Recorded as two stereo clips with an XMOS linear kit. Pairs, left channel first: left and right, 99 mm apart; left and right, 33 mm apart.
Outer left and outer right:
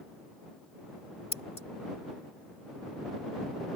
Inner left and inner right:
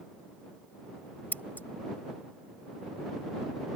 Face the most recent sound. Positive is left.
turn(degrees=75)  # may be behind; listen again after turning